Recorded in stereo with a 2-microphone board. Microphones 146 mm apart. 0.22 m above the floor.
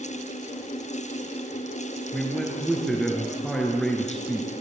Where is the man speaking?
Centre (ahead or behind), 3.5 m.